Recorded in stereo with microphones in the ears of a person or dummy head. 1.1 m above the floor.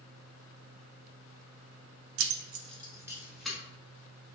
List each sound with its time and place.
2.2 s keys jangling: 70° right (ahead or behind), 0.5 m; by 3.6 s centre (ahead or behind), 1.1 m